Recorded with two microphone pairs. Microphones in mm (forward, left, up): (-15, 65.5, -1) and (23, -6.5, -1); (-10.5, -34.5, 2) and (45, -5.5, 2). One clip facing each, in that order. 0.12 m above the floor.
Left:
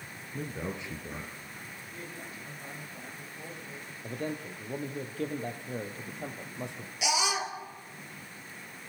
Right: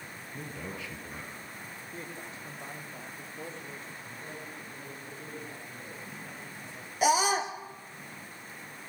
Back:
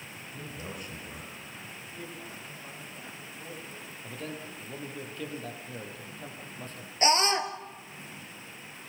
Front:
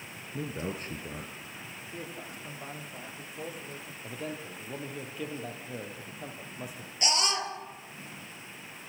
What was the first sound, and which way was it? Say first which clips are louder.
A man speaking: left 4 dB, front 7 dB; 50° left.